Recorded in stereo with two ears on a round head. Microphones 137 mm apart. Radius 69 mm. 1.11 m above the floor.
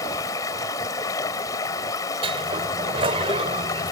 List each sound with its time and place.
0.0 s running water: 25° left (ahead or behind)
2.2 s a sliding door: 35° right (ahead or behind)